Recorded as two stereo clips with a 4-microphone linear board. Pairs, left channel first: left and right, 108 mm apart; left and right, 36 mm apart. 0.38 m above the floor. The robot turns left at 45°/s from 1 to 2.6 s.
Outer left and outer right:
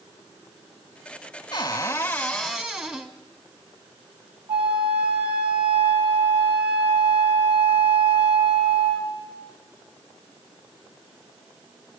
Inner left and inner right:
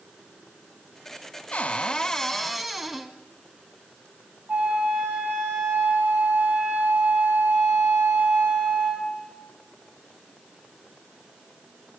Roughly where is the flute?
Right.